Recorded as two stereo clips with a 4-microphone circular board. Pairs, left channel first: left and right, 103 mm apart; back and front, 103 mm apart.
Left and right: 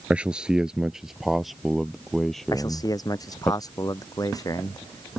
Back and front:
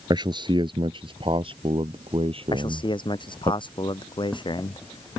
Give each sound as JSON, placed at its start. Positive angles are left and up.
{"t": 0.1, "sound": "a man speaking", "azimuth_deg": -15}
{"t": 2.5, "sound": "a man speaking", "azimuth_deg": 140}